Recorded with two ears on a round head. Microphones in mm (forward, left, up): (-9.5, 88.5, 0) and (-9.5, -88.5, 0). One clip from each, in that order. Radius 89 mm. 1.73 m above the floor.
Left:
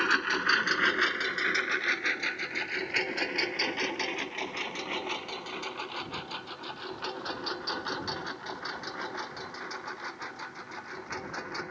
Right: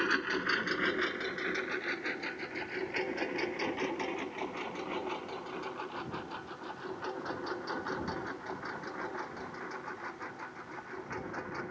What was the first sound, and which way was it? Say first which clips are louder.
A lawn mower: left 5 dB; 40° left (ahead or behind).